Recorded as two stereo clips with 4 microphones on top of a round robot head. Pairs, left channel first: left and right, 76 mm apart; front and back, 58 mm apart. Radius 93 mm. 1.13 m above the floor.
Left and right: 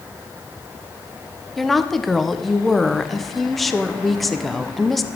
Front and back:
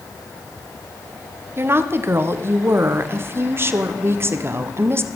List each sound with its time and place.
1.6 s a woman speaking: straight behind, 0.8 m